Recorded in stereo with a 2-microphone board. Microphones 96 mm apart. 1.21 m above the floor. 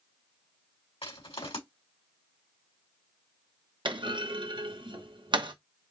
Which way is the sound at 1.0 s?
80° left.